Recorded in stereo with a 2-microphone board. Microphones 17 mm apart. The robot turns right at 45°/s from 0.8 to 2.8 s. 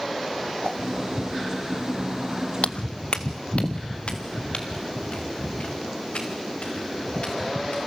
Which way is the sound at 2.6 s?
65° left (ahead or behind).